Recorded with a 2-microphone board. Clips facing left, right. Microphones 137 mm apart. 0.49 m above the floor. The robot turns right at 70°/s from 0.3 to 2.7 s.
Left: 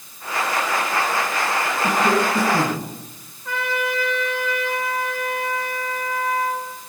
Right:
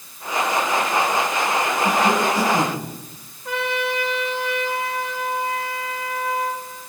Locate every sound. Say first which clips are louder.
1.8 s a cough: left 1 dB; 80° left, 6.5 m; by 2.9 s 140° left, 6.5 m
3.5 s a trumpet: right 1 dB; 15° right (ahead or behind), 4 m